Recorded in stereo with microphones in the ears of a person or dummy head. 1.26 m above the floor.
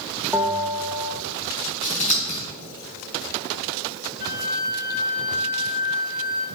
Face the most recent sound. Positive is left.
turn(degrees=50)  # may be behind; listen again after turning